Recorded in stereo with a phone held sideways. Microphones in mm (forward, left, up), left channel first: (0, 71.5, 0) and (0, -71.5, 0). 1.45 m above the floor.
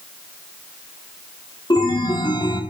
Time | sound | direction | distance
1.7 | a chime | 35° left (ahead or behind) | 1.1 m